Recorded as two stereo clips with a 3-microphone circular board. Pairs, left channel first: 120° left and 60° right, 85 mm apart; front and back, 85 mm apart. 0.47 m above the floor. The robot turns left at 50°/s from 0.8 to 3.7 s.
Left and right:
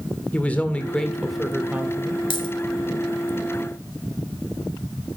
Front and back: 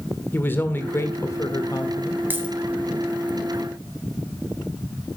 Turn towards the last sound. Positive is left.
turn(degrees=45)